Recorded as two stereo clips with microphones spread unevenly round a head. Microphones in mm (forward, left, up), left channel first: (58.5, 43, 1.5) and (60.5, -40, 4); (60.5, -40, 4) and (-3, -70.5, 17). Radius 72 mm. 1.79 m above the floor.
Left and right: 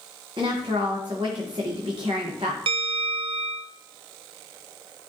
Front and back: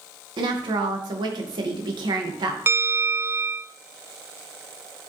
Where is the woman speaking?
150° right, 2 m.